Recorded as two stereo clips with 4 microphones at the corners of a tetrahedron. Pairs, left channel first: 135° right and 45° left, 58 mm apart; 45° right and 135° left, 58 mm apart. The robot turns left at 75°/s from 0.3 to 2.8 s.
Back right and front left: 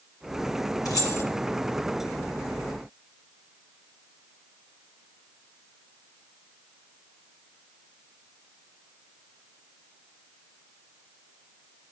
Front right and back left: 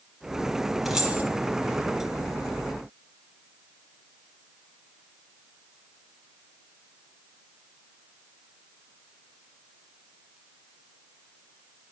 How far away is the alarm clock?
No alarm clock in this recording.